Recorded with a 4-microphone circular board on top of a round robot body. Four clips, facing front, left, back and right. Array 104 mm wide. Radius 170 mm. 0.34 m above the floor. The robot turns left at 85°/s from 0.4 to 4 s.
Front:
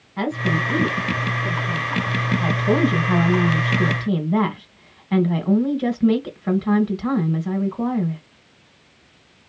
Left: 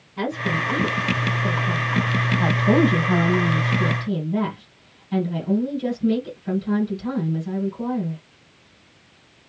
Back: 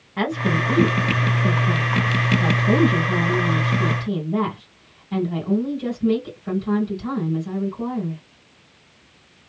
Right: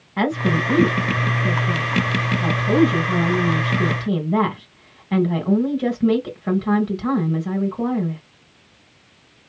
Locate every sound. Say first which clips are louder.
0.2 s a woman speaking: right 5 dB, back 1 dB; 100° right, 2.0 m; by 8.2 s 50° right, 2.0 m